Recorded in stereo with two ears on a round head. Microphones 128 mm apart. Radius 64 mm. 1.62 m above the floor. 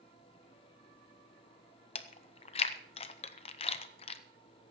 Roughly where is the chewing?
Left.